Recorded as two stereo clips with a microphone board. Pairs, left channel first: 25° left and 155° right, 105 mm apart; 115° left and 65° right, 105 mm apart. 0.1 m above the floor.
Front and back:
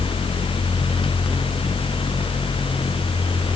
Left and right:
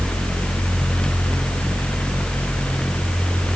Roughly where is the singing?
I don't hear singing.